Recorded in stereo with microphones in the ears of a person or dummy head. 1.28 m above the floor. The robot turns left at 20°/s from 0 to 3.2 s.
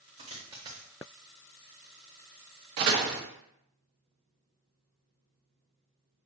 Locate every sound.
0.2 s a dropped coin: 20° right (ahead or behind), 0.9 m; by 0.9 s 15° right (ahead or behind), 0.9 m
2.8 s a door slam: 55° right (ahead or behind), 0.8 m